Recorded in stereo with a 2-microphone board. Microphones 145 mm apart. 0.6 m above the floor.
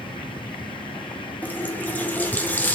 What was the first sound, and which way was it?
A running tap, 10° left (ahead or behind).